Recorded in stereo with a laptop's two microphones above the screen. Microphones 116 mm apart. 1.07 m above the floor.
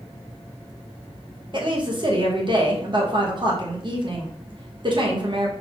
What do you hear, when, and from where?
1.5 s a woman speaking: 45° right (ahead or behind), 0.8 m